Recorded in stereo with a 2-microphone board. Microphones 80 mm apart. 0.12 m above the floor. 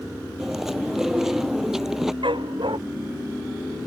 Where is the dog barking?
80° right.